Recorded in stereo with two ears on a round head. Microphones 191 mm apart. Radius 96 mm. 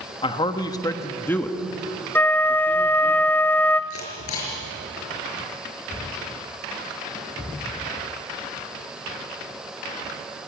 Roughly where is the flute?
Centre.